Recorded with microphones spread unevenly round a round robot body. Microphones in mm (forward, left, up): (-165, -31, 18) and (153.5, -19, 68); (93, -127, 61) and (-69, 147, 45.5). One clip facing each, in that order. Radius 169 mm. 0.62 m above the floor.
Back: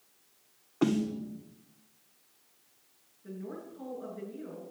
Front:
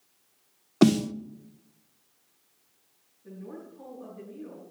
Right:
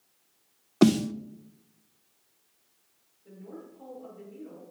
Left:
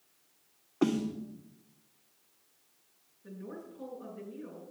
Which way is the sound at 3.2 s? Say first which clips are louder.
Back 1 dB, left 1 dB; 125° left.